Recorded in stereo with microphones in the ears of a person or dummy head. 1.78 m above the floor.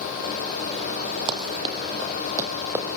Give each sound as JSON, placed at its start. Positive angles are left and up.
{"t": 1.3, "sound": "running footsteps", "side_deg": -25, "distance_m": 3.0}